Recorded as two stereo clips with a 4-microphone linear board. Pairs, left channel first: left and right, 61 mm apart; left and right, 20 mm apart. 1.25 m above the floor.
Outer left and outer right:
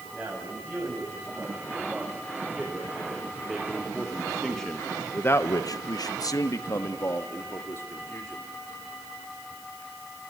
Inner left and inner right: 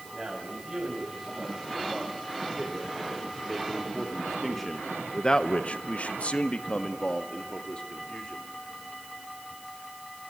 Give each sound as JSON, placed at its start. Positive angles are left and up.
{"t": 0.1, "sound": "a man speaking", "side_deg": -15, "distance_m": 7.5}